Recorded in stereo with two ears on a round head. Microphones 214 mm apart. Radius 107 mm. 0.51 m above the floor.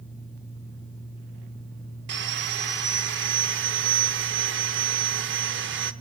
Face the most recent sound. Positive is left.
turn(degrees=-50)  # may be behind; listen again after turning